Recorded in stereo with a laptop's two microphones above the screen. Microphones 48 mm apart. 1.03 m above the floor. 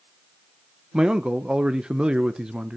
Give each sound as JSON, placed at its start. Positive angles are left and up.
{"t": 0.9, "sound": "a man speaking", "side_deg": -15, "distance_m": 0.8}